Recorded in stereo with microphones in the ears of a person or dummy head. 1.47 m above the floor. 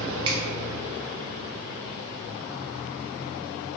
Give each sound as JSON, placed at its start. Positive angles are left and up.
{"t": 0.2, "sound": "a finger snap", "side_deg": -30, "distance_m": 0.8}